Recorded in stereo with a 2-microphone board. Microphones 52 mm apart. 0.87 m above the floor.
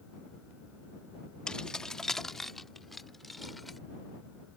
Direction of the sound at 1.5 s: 15° left (ahead or behind).